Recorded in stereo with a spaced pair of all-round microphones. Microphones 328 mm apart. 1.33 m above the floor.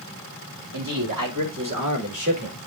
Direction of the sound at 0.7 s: 85° right.